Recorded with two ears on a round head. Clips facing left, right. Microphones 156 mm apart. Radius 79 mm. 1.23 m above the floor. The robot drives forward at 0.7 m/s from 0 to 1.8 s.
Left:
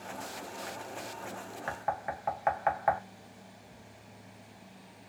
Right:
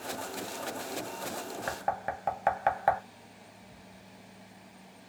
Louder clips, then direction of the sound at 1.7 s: Right 1 dB; 45° right (ahead or behind).